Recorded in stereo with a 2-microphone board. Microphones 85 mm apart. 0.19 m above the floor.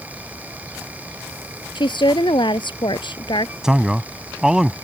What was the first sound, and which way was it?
A woman speaking, 70° left (ahead or behind).